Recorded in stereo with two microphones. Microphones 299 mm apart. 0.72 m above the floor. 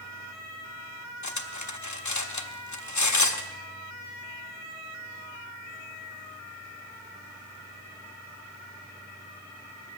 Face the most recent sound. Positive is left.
turn(degrees=75)  # may be behind; listen again after turning